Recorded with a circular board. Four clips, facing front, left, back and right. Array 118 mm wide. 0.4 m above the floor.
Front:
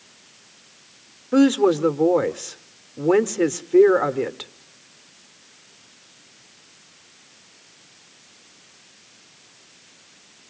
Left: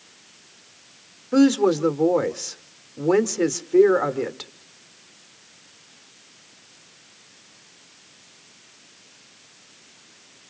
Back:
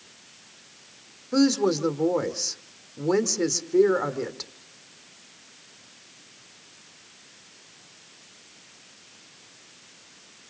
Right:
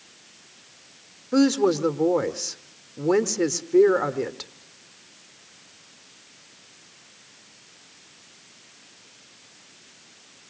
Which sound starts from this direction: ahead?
A woman speaking, at 1.3 s.